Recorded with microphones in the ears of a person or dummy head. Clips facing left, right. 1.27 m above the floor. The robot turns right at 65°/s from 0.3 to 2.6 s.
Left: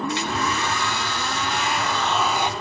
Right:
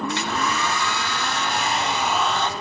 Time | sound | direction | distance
0.1 | a hair dryer | 125° right | 1.1 m